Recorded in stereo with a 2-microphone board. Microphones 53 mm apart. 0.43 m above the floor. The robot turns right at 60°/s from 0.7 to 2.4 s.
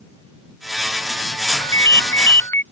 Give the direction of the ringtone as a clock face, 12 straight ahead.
9 o'clock.